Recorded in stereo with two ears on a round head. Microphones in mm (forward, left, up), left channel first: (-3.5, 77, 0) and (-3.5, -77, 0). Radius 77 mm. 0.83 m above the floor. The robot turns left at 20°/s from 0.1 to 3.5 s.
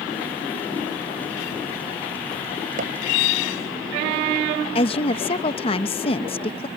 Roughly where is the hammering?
Right.